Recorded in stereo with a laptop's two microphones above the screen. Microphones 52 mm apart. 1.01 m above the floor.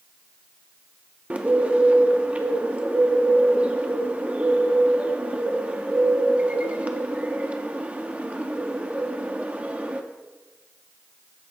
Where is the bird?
25° right (ahead or behind), 0.5 m.